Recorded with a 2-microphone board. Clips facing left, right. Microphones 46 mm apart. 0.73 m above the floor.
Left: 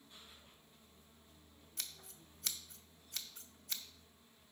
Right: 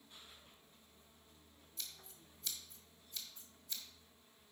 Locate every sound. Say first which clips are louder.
1.8 s scissors: left 2 dB; 80° left, 0.7 m